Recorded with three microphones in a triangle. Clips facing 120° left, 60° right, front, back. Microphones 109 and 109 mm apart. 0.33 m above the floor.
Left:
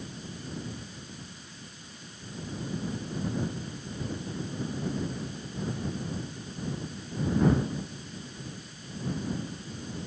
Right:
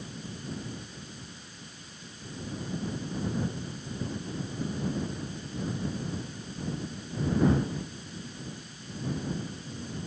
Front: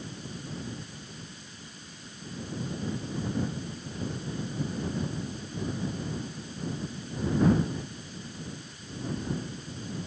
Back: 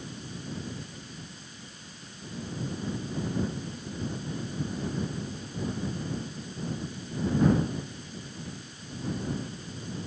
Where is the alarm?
I don't hear an alarm.